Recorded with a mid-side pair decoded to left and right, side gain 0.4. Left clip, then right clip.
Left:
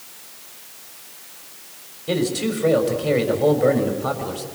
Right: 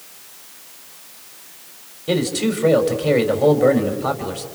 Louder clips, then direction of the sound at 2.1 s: Right 2 dB; 30° right.